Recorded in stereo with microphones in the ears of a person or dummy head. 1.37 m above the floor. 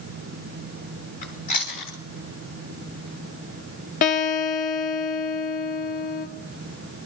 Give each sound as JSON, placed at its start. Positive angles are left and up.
{"t": 1.2, "sound": "chewing", "side_deg": 40, "distance_m": 4.0}
{"t": 4.0, "sound": "a guitar", "side_deg": 40, "distance_m": 1.7}